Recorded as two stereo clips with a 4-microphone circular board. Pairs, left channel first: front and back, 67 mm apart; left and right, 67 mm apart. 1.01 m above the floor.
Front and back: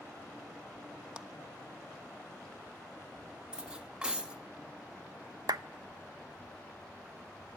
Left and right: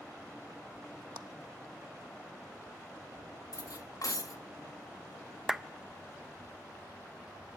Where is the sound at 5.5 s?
175° right, 0.6 m.